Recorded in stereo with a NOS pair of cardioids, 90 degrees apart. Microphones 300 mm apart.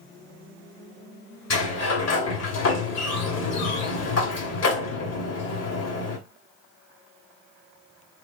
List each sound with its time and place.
1.5 s a sliding door: 60° left, 2 m